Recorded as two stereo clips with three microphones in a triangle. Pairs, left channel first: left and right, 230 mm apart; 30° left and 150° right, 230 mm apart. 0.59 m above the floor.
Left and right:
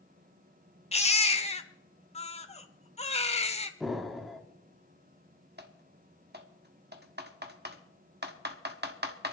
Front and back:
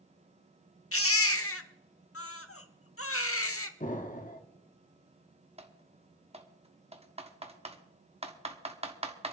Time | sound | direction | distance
0.9 | a baby crying | 30° left | 1.0 m
3.8 | an explosion | straight ahead | 1.2 m
5.6 | typing on a keyboard | 95° right | 1.2 m